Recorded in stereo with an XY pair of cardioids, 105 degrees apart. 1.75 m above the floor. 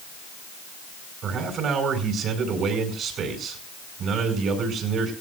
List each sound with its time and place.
1.2 s a man speaking: 65° right, 5 m